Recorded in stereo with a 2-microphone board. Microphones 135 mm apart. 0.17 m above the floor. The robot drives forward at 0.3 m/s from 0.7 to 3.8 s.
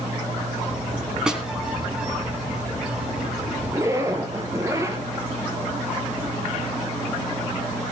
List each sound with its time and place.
1.3 s a snare drum: 5° right (ahead or behind), 1.9 m
3.7 s a zipper: 25° right (ahead or behind), 2 m